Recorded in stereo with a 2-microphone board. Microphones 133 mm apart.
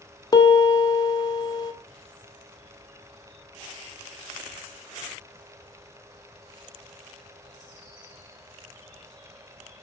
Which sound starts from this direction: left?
A piano, at 0.3 s.